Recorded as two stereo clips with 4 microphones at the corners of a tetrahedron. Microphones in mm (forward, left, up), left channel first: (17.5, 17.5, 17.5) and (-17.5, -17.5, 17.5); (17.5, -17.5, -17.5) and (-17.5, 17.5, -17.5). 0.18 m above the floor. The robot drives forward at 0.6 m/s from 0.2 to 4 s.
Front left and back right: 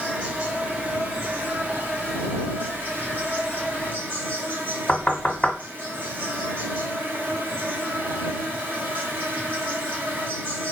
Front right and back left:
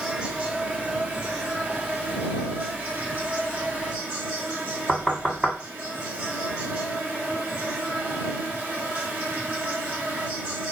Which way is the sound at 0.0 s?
Straight behind.